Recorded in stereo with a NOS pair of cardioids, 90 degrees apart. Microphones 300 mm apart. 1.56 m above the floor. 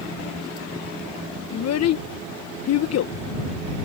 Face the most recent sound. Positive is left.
turn(degrees=60)